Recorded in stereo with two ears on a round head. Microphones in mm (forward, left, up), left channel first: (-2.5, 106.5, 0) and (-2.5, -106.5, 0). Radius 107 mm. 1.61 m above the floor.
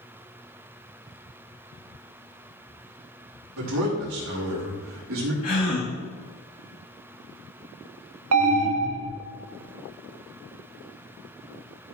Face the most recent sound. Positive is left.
turn(degrees=-65)  # may be behind; listen again after turning